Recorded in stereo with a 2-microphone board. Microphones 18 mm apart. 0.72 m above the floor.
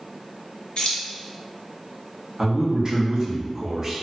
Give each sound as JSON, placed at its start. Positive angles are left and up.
{"t": 0.8, "sound": "keys jangling", "side_deg": 65, "distance_m": 0.8}
{"t": 2.4, "sound": "a man speaking", "side_deg": -35, "distance_m": 0.9}